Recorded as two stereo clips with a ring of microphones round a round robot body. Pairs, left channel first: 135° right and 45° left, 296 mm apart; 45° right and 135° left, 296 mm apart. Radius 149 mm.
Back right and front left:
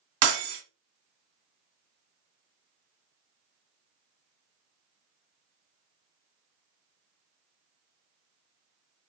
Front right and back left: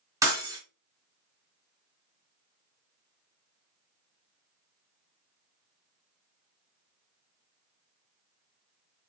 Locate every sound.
0.2 s breaking glass: 55° left, 1.5 m